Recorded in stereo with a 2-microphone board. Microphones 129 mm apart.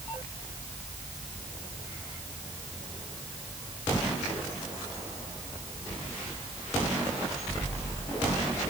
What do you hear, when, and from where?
Only background noise.